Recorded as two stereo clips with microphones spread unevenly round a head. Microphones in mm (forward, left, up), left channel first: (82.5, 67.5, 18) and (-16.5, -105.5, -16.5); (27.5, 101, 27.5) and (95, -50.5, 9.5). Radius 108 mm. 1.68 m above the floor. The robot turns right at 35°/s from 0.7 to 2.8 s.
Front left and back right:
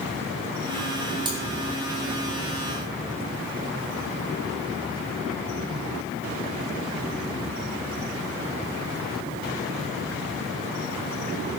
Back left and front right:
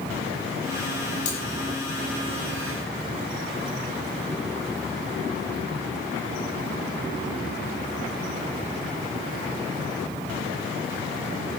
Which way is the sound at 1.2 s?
170° left.